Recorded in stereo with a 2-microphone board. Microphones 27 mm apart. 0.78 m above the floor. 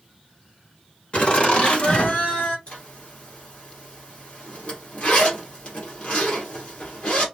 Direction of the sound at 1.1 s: 45° left (ahead or behind).